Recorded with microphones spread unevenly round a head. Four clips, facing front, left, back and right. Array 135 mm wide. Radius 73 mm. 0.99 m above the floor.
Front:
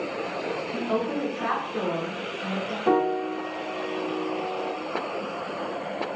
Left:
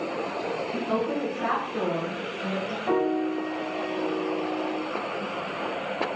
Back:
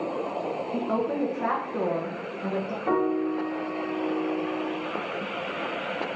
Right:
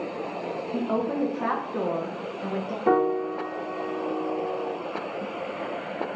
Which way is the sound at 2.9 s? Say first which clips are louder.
Right 3 dB, front 2 dB; 65° right.